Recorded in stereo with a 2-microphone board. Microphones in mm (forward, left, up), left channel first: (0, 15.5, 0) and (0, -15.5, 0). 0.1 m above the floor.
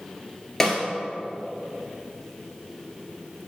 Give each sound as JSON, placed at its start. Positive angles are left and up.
{"t": 0.6, "sound": "a snare drum", "side_deg": 10, "distance_m": 2.0}